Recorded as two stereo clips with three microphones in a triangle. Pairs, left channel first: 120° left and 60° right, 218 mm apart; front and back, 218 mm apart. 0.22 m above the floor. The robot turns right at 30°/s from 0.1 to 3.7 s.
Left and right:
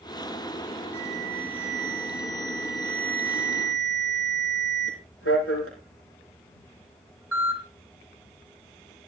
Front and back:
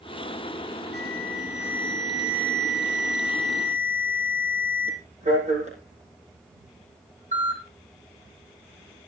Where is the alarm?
40° left, 6.5 m; by 9.1 s 125° left, 6.5 m.